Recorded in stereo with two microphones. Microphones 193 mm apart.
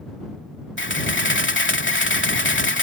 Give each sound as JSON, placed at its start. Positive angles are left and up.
{"t": 0.8, "sound": "a camera shutter", "side_deg": 80}